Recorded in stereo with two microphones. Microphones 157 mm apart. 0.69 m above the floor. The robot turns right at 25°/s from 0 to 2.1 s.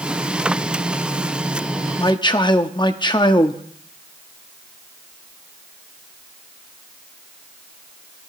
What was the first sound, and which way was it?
A man speaking, 30° left (ahead or behind).